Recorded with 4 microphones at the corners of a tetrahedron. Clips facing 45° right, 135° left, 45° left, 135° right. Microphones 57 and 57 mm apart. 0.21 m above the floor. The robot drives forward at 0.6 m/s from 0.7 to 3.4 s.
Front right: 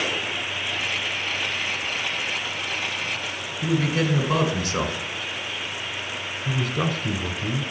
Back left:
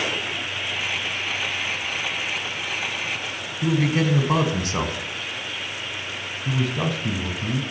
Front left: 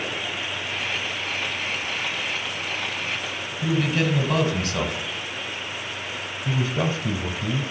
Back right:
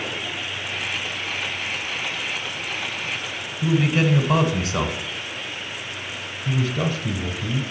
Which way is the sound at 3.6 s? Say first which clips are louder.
Back left 2 dB, back right 3 dB; 155° left.